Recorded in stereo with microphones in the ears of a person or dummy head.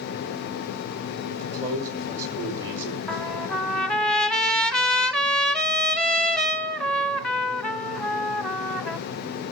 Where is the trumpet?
5° left (ahead or behind), 1.0 m.